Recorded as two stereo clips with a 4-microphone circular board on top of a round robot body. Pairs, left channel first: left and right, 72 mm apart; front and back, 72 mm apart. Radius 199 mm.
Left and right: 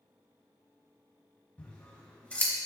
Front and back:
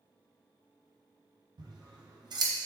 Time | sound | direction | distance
1.6 | scissors | 160° left | 1.0 m